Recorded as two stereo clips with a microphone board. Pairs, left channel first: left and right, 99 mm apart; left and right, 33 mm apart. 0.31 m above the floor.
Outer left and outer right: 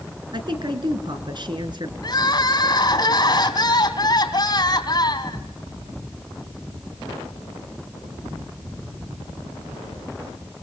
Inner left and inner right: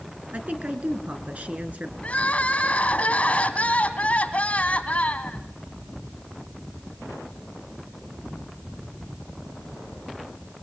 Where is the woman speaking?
50° right (ahead or behind), 3.5 m.